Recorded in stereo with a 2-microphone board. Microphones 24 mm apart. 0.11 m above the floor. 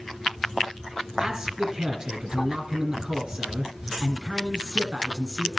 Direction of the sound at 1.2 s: 25° right (ahead or behind).